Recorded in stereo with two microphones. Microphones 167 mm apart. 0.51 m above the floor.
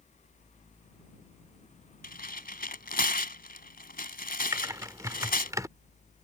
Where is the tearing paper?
65° left (ahead or behind).